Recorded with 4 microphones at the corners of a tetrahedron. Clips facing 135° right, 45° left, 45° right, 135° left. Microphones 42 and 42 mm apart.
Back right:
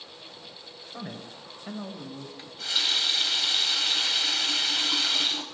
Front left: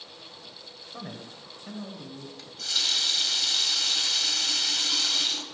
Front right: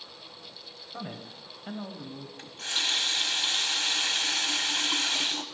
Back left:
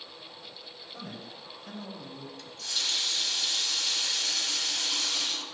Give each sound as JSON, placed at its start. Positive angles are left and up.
{"t": 0.9, "sound": "a man speaking", "azimuth_deg": -50, "distance_m": 1.6}
{"t": 2.4, "sound": "a running tap", "azimuth_deg": -70, "distance_m": 1.1}